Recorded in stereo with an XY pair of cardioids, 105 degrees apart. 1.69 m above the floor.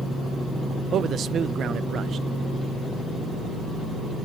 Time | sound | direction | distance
0.9 | a man speaking | 60° right | 0.6 m